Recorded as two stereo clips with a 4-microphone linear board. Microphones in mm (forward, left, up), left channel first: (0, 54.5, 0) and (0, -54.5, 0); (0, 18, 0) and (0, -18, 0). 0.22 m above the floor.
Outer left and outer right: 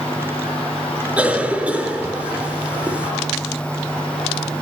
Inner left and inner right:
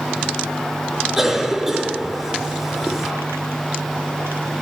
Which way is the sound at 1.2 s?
10° right (ahead or behind).